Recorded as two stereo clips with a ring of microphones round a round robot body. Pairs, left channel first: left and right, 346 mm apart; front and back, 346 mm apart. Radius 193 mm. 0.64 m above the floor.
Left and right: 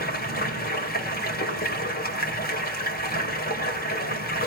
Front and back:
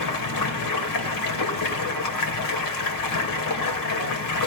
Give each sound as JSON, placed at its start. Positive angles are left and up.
{"t": 0.0, "sound": "running water", "azimuth_deg": 25, "distance_m": 3.0}